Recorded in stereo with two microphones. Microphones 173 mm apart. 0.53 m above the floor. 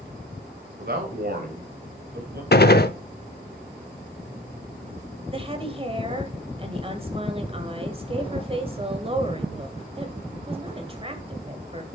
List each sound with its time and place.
0.8 s a man speaking: 60° right (ahead or behind), 2.5 m
2.5 s a gunshot: 60° left (ahead or behind), 0.7 m
5.3 s a woman speaking: 30° right (ahead or behind), 2 m